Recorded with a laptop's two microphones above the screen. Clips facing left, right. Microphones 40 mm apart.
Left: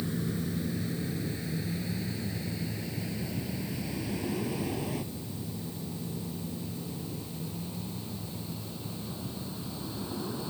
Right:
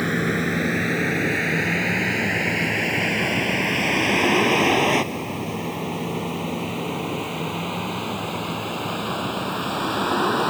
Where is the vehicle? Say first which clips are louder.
Right 11 dB; 75° right (ahead or behind); by 10.5 s 85° right.